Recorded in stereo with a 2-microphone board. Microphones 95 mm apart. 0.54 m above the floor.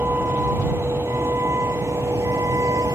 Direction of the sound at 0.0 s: 20° right (ahead or behind).